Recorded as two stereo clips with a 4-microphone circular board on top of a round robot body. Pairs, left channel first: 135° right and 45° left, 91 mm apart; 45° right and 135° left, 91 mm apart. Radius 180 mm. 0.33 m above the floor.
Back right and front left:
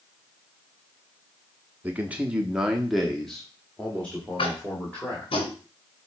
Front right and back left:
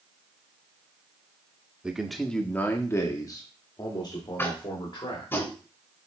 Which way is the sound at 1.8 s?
75° left.